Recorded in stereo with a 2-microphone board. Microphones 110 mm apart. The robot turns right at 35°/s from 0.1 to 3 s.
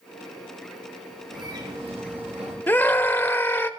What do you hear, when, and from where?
1.3 s a bird: 135° right, 7 m; by 2.6 s 95° right, 7 m
2.7 s a scream: 20° left (ahead or behind), 0.9 m